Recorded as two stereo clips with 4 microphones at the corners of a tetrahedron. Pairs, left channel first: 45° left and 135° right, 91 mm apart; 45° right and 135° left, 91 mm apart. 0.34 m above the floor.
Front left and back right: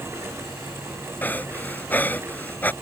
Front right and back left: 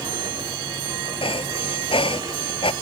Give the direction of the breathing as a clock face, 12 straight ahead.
1 o'clock.